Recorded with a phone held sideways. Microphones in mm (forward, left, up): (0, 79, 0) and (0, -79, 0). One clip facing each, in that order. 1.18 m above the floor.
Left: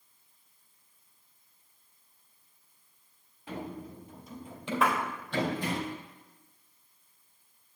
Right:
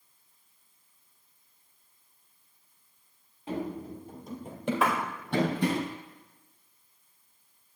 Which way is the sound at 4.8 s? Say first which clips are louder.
Even; centre (ahead or behind).